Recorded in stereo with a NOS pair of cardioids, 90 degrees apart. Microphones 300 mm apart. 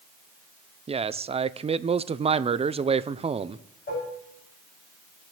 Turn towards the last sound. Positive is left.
turn(degrees=25)